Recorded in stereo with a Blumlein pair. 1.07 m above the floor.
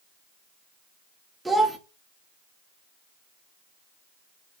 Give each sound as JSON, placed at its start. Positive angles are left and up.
{"t": 1.4, "sound": "a child speaking", "azimuth_deg": -5, "distance_m": 0.5}